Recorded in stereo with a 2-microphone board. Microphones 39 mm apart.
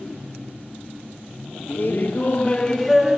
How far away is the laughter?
About 1.0 m.